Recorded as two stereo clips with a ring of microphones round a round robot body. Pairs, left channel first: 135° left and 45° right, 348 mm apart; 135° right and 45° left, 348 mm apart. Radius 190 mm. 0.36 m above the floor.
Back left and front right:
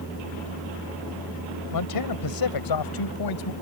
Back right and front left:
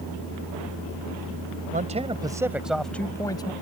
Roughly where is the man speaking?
Left.